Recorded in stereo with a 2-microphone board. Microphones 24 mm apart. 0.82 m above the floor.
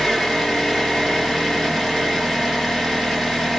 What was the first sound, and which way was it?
An engine running, 10° left (ahead or behind).